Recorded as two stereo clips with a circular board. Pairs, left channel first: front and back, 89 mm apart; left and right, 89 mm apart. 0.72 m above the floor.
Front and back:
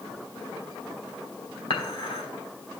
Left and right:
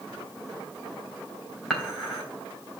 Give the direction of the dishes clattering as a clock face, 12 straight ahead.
12 o'clock.